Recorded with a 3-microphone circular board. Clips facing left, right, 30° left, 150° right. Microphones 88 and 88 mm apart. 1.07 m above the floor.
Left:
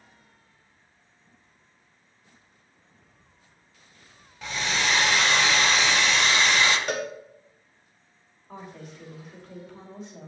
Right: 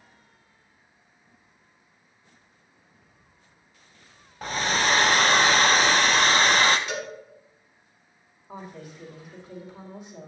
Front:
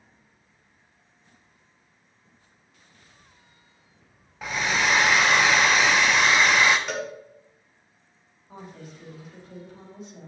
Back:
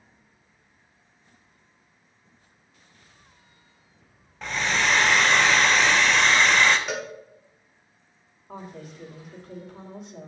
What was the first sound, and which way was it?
A hair dryer, 50° right.